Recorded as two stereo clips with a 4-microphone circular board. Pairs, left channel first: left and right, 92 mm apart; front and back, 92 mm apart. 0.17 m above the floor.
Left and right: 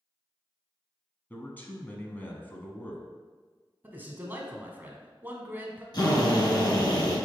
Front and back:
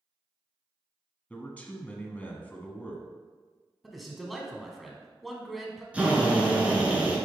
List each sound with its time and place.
1.3 s a man speaking: 55° left, 1.0 m
3.8 s a man speaking: 90° right, 1.1 m
5.9 s a drill: 110° left, 1.7 m